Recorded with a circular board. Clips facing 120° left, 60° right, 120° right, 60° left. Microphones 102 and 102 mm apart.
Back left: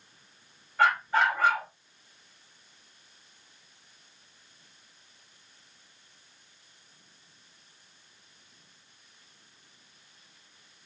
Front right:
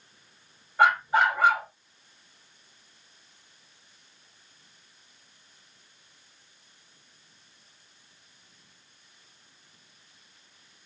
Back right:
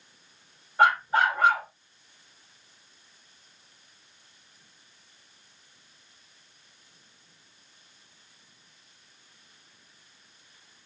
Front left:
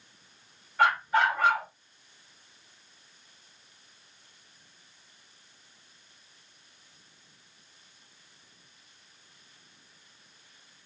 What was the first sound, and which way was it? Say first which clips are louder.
A dog barking: front right 3 dB, back right 2 dB; 110° right.